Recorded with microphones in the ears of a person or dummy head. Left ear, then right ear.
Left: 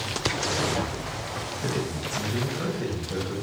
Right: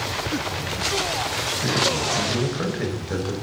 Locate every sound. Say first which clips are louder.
1.6 s a man speaking: right 10 dB; 5° right (ahead or behind), 0.9 m; by 3.3 s 55° right (ahead or behind), 1.0 m